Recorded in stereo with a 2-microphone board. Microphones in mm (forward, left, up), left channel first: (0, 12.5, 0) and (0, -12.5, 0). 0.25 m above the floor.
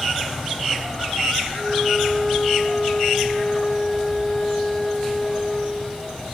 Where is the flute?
20° left (ahead or behind), 1.3 m.